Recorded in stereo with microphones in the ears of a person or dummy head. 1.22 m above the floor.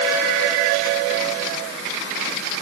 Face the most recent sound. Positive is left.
No sound to turn to.